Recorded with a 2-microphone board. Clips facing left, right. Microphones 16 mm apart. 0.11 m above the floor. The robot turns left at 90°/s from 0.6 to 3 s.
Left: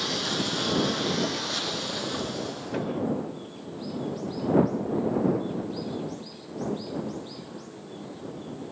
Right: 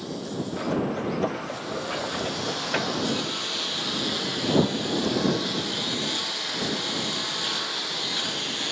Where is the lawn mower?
130° left; by 8.7 s 85° right.